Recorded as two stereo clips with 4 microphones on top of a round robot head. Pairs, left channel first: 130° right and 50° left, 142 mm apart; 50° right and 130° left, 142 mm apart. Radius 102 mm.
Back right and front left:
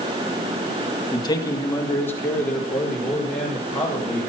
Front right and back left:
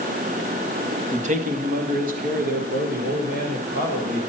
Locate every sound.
1.1 s a man speaking: 170° left, 1.6 m; by 4.2 s 145° left, 6 m